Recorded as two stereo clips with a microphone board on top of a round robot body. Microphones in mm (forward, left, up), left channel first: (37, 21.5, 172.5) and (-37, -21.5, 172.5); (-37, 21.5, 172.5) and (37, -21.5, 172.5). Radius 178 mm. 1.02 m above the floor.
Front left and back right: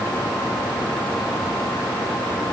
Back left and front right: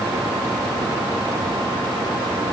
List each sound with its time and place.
Only background noise.